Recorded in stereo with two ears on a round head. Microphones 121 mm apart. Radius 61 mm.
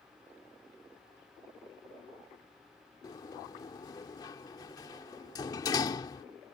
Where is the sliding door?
30° left (ahead or behind).